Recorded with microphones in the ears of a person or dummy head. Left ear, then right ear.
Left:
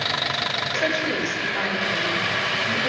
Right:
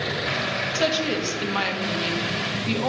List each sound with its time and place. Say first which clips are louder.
0.8 s a woman speaking: right 1 dB; 50° right (ahead or behind), 2 m